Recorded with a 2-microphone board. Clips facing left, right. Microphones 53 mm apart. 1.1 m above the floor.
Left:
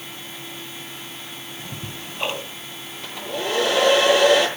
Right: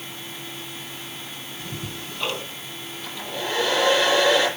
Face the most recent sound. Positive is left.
turn(degrees=80)